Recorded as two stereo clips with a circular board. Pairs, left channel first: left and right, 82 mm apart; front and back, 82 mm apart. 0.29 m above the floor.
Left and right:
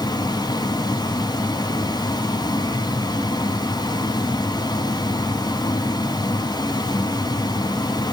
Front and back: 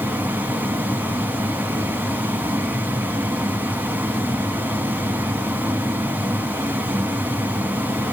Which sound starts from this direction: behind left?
Running water, at 0.0 s.